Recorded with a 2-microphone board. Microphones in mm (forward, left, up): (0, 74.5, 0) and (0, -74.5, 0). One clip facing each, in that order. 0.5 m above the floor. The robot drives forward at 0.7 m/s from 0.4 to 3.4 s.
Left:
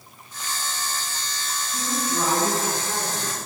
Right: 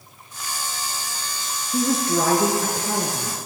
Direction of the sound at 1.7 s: 75° right (ahead or behind).